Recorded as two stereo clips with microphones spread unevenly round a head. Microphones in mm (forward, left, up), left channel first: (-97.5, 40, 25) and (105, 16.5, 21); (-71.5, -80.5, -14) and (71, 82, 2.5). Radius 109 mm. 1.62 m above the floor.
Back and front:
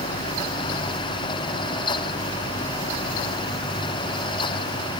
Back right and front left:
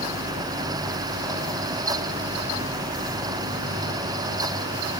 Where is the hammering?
No hammering in this recording.